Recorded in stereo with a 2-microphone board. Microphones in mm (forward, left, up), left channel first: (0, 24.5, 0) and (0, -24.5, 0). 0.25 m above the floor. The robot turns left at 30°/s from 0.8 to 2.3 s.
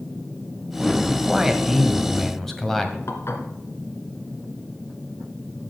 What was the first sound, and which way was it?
A man speaking, 155° right.